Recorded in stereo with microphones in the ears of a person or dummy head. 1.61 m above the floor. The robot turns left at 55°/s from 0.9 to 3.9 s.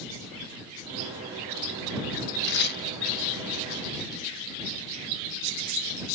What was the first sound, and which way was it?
Tearing paper, 65° left (ahead or behind).